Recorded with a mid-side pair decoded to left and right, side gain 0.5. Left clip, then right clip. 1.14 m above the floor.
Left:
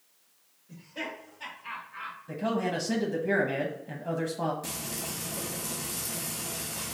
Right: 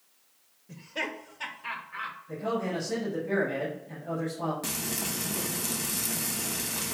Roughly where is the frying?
Ahead right.